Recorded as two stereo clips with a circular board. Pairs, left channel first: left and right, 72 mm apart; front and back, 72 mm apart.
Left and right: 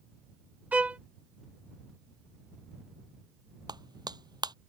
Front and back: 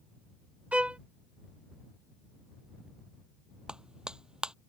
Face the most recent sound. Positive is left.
turn(degrees=-100)